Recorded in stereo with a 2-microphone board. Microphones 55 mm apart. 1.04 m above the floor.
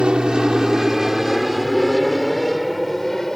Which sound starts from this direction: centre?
An aircraft, at 0.0 s.